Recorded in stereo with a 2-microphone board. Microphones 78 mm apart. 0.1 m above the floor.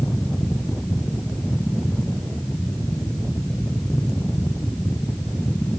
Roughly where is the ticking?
I don't hear ticking.